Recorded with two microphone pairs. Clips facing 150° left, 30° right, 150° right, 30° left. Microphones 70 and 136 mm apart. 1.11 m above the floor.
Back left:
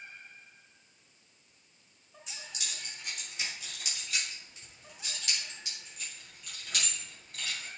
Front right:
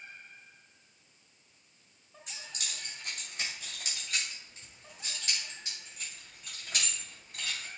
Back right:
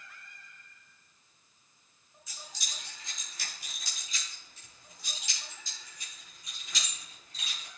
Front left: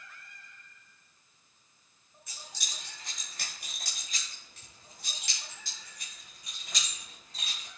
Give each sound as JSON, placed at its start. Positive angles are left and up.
{"t": 2.3, "sound": "keys jangling", "azimuth_deg": 10, "distance_m": 4.0}